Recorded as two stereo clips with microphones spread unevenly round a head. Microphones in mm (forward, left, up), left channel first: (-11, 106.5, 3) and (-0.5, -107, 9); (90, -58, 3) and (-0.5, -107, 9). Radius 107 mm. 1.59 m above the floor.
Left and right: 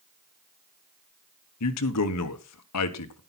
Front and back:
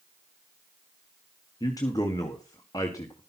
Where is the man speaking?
100° left, 1.3 m.